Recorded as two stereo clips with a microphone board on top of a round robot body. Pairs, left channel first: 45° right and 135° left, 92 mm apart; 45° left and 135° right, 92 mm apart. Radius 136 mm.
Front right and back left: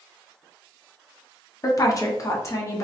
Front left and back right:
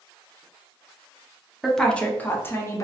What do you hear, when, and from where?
1.6 s a woman speaking: 45° right, 1.0 m; by 2.8 s straight ahead, 1.3 m